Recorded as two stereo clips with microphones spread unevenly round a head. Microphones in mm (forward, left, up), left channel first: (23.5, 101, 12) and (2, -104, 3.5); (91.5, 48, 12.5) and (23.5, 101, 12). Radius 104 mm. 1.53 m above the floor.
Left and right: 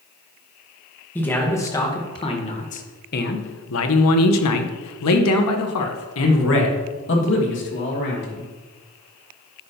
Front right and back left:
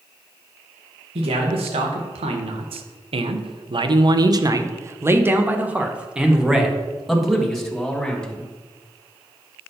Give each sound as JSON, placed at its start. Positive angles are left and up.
{"t": 1.1, "sound": "a man speaking", "azimuth_deg": 165, "distance_m": 1.9}